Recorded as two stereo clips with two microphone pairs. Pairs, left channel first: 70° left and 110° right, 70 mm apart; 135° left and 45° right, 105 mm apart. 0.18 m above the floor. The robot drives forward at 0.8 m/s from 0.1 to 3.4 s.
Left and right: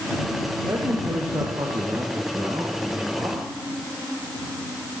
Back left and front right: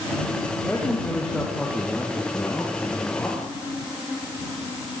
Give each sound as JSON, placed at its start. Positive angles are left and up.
{"t": 0.7, "sound": "a man speaking", "azimuth_deg": -140, "distance_m": 6.0}